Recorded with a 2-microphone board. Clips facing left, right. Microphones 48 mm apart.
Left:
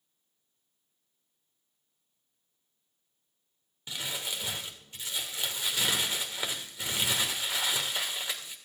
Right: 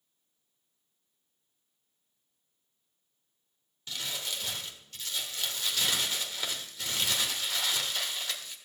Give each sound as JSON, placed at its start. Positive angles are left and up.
{"t": 3.9, "sound": "crumpling", "side_deg": 20, "distance_m": 1.6}